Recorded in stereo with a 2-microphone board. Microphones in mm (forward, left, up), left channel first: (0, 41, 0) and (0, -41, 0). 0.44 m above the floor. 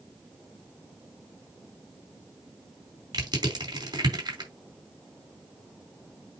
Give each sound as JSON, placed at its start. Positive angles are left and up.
{"t": 3.1, "sound": "crushing", "side_deg": -60, "distance_m": 3.5}